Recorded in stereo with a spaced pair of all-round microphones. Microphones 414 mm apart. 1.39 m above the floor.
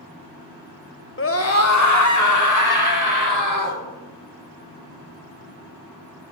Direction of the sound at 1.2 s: 30° left (ahead or behind).